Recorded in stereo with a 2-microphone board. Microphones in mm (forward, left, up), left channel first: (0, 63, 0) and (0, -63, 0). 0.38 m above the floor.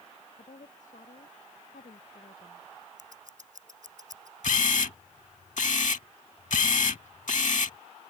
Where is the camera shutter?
75° left (ahead or behind).